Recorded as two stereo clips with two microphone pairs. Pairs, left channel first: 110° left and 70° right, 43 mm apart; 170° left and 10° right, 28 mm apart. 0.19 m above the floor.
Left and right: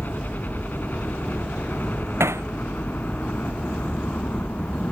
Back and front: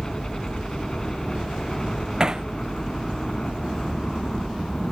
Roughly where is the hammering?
Right.